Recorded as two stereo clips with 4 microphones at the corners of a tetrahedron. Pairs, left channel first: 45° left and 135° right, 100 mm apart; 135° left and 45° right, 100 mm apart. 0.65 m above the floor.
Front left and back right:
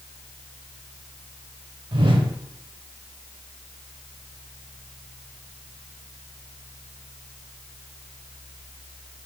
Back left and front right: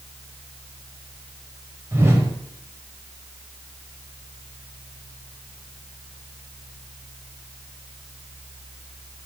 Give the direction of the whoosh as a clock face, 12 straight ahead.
4 o'clock.